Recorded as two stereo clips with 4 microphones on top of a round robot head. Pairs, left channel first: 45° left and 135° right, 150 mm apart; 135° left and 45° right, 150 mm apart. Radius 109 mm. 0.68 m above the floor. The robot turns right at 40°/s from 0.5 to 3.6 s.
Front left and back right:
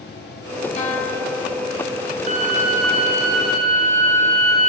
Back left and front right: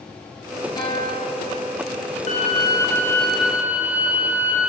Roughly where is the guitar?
Left.